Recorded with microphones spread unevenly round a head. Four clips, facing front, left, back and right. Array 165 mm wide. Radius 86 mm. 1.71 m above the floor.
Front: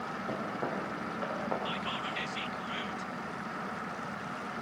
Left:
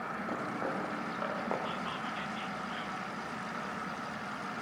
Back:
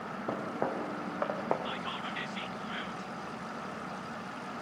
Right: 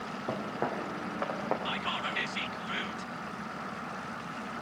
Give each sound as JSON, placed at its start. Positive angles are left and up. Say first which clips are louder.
{"t": 0.3, "sound": "footsteps", "louder": "right 4 dB, back 3 dB", "azimuth_deg": -145, "distance_m": 6.0}
{"t": 1.6, "sound": "whispering", "louder": "right 3 dB, front 1 dB", "azimuth_deg": -90, "distance_m": 1.3}